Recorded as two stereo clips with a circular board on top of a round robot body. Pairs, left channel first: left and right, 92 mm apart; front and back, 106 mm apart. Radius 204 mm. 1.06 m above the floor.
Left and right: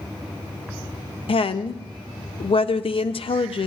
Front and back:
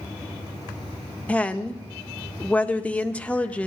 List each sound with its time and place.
1.3 s a woman speaking: 75° left, 0.7 m